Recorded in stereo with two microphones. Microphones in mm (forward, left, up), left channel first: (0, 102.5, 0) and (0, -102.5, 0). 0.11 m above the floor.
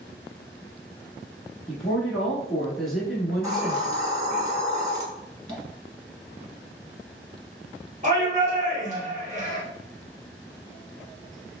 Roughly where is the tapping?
Right.